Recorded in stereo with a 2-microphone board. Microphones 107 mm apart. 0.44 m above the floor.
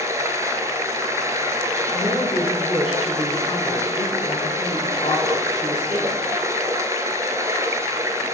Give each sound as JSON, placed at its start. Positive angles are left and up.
{"t": 0.0, "sound": "running water", "side_deg": -30, "distance_m": 1.0}
{"t": 1.9, "sound": "a woman speaking", "side_deg": 55, "distance_m": 4.5}